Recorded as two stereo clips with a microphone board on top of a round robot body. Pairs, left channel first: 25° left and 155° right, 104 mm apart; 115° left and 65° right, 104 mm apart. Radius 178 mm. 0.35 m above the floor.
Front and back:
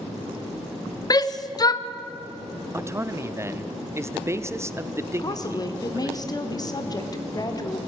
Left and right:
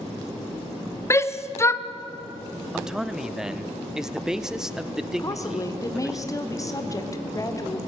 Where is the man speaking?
145° right, 0.9 m.